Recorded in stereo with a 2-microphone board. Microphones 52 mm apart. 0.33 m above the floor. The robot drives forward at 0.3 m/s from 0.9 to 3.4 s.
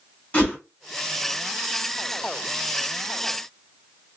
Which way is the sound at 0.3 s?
30° left (ahead or behind).